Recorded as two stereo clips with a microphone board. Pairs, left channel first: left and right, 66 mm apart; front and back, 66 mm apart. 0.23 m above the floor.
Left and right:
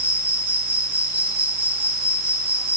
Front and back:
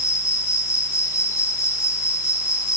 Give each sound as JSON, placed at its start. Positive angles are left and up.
{"t": 0.0, "sound": "an insect", "azimuth_deg": -30, "distance_m": 1.9}